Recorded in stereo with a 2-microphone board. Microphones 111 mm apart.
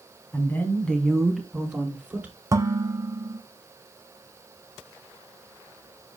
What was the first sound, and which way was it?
A woman speaking, 20° left (ahead or behind).